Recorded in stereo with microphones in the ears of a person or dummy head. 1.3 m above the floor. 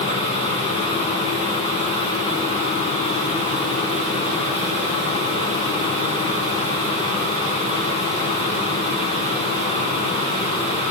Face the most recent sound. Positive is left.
turn(degrees=30)  # may be behind; listen again after turning